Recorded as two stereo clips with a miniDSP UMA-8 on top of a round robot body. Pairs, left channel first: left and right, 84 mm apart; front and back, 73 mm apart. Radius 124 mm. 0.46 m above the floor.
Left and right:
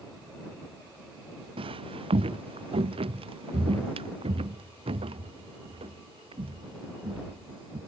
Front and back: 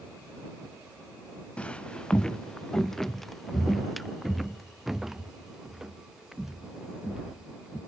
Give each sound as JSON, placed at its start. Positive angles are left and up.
{"t": 1.6, "sound": "footsteps", "azimuth_deg": -75}